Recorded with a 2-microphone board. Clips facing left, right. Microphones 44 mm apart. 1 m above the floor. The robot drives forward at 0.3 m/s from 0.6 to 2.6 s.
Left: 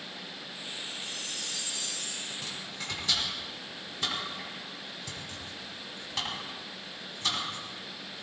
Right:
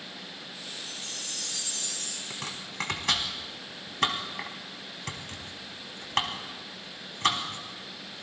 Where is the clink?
No clink in this recording.